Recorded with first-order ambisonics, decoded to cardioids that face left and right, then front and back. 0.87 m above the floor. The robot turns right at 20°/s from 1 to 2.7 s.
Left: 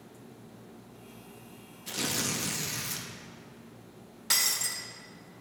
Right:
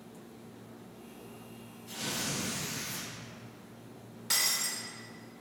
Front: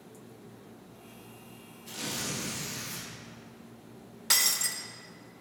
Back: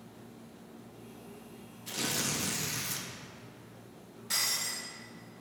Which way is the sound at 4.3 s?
20° left.